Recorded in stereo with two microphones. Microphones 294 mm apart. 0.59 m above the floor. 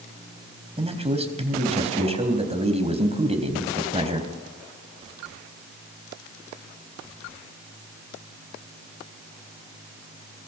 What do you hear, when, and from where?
0.8 s a man speaking: 20° right (ahead or behind), 3.5 m